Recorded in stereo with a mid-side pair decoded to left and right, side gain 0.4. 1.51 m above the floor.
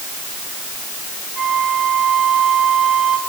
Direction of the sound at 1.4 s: 45° right.